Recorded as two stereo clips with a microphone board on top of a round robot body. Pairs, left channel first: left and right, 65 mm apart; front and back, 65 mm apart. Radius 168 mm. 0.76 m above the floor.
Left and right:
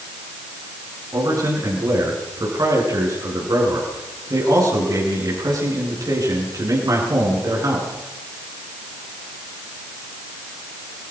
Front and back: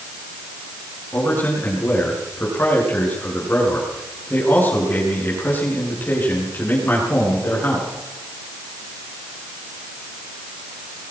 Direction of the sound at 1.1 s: 60° right.